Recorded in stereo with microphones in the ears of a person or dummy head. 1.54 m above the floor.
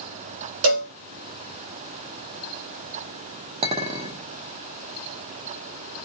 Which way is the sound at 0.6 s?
55° right (ahead or behind).